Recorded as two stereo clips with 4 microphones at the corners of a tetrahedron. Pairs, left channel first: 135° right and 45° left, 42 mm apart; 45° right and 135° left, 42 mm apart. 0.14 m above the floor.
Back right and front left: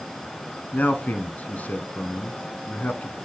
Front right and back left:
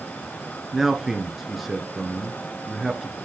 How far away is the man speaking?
About 1.3 m.